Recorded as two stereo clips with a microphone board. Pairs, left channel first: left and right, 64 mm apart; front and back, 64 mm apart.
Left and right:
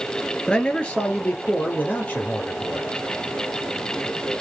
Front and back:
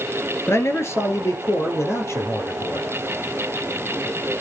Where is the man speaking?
20° left, 2 m; by 2.9 s 35° left, 4.5 m.